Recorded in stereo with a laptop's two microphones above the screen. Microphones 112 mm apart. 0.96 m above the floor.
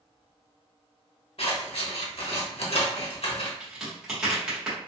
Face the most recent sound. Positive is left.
turn(degrees=-10)  # may be behind; listen again after turning